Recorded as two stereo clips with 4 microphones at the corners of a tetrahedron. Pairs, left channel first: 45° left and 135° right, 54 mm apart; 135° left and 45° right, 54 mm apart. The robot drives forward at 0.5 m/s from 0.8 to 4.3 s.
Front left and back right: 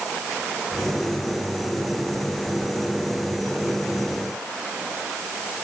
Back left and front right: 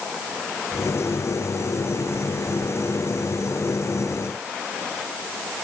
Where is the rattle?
I don't hear a rattle.